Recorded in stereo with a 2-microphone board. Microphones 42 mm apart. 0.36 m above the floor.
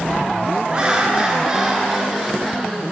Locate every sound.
0.7 s laughter: 20° right (ahead or behind), 5.5 m; by 2.8 s centre (ahead or behind), 6.5 m